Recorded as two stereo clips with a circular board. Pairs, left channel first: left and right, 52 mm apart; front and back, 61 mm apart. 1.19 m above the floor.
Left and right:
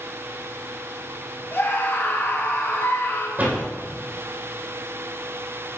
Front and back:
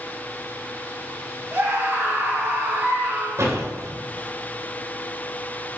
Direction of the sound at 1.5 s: 135° left.